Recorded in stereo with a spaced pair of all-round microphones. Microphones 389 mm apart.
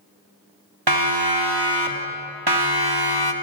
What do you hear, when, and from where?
0.9 s a siren: 80° right, 3.5 m; by 3.3 s 70° right (ahead or behind), 2.5 m